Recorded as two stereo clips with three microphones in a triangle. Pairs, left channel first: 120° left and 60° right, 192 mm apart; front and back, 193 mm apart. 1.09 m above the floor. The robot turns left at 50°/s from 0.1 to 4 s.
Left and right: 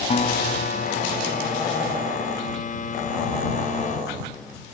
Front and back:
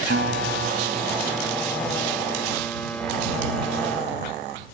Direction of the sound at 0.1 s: 175° left.